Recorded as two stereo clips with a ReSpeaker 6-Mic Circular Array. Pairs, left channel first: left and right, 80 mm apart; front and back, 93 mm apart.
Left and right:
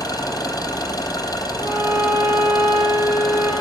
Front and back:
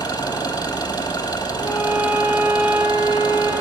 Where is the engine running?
45° left, 2.5 m.